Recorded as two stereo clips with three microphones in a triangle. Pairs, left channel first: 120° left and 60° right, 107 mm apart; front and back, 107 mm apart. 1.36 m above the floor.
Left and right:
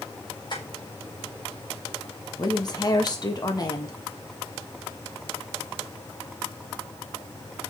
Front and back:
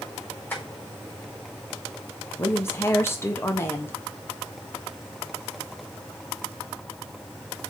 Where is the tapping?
75° left, 5.5 m.